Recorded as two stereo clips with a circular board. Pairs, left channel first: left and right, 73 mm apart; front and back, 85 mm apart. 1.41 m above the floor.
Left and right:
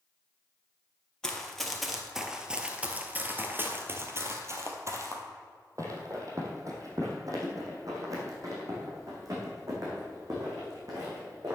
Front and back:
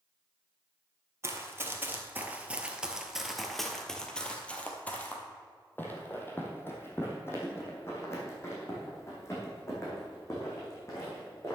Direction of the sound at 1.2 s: 165° left.